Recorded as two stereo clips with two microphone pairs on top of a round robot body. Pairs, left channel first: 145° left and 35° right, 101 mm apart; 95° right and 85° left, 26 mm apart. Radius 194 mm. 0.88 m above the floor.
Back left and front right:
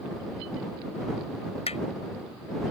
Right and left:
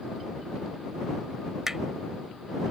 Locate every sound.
1.7 s hammering: 160° left